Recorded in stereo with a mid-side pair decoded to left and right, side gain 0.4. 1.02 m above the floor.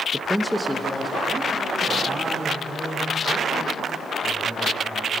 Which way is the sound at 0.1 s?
10° right.